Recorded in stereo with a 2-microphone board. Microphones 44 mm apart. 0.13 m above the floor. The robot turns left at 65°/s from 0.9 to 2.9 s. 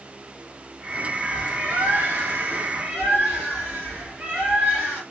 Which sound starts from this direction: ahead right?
A bird, at 1.2 s.